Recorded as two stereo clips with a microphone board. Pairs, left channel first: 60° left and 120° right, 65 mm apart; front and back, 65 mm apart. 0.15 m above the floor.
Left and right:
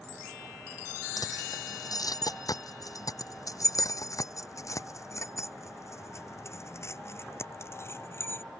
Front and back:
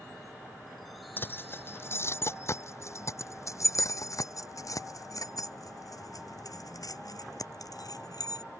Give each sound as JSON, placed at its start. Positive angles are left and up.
{"t": 1.2, "sound": "keys jangling", "azimuth_deg": 55}